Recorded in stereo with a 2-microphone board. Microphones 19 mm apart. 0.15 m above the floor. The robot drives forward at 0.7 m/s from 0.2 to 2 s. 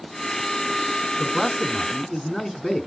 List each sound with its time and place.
1.2 s a man speaking: 25° left (ahead or behind), 1.2 m